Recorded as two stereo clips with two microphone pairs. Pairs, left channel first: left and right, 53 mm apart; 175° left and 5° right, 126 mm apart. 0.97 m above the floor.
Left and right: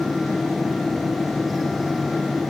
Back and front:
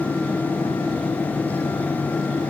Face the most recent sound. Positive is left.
No sound to turn to.